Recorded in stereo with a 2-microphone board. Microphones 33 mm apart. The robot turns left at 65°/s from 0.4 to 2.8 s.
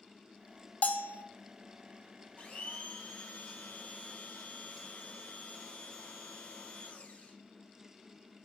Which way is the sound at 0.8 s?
50° left (ahead or behind).